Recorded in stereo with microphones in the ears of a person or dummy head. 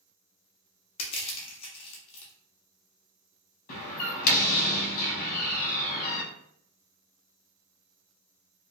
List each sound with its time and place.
1.0 s crushing: 25° left (ahead or behind), 0.6 m
3.7 s a door slam: 45° left (ahead or behind), 0.7 m